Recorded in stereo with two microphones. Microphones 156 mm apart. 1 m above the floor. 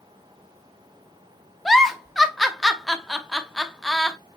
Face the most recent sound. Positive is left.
turn(degrees=0)  # may be behind; listen again after turning